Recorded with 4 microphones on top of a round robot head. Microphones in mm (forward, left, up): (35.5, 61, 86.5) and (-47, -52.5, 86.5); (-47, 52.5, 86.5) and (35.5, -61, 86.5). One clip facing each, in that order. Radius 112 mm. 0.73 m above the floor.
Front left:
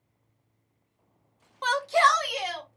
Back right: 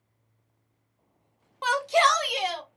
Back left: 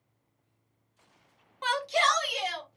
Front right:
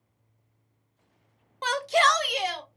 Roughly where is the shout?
Ahead right.